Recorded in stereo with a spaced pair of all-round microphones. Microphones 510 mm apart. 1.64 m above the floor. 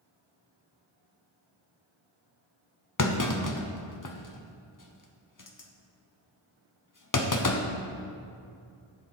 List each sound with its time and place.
3.0 s a clunk: 40° left (ahead or behind), 0.8 m